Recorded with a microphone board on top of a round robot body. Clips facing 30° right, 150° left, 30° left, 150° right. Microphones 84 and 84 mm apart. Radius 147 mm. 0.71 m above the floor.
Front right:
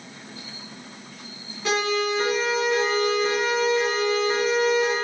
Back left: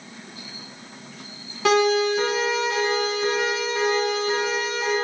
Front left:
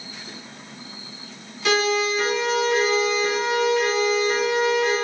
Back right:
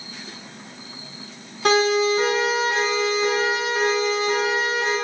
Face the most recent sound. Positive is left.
turn(degrees=-170)